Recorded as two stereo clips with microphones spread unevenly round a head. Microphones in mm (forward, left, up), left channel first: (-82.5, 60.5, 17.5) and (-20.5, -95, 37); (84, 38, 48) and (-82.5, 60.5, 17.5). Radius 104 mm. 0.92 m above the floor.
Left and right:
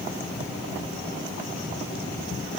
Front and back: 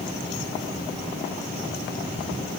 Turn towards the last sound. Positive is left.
No sound to turn to.